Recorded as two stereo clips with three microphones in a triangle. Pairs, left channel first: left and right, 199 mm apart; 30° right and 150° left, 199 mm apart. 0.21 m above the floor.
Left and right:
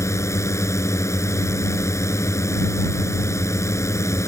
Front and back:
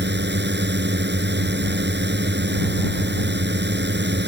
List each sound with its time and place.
0.0 s a drone: 165° left